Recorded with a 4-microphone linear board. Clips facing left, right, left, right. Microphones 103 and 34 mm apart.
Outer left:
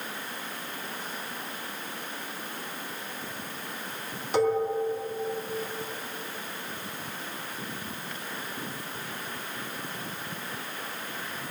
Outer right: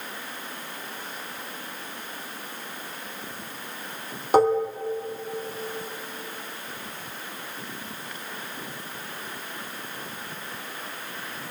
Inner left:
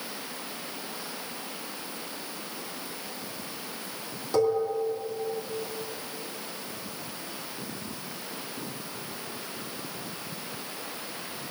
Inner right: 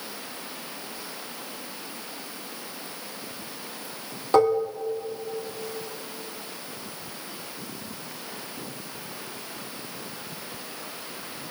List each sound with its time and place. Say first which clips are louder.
4.3 s dishes clattering: outer right 5 dB, inner right 5 dB; 50° right (ahead or behind), 2 m